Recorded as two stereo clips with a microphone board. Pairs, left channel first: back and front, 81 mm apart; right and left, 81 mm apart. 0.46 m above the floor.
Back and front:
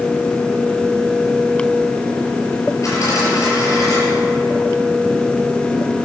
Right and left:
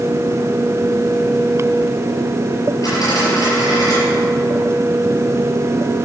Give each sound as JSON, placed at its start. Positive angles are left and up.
{"t": 2.8, "sound": "a dropped coin", "azimuth_deg": -130, "distance_m": 5.5}